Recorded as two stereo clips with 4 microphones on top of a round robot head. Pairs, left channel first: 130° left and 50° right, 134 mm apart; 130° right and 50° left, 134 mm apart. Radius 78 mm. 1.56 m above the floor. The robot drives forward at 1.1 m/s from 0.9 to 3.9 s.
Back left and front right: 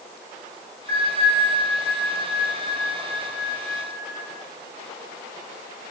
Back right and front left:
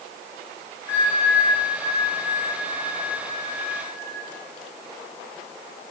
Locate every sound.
0.9 s a bell: 60° right, 2 m; by 4.3 s 150° right, 3 m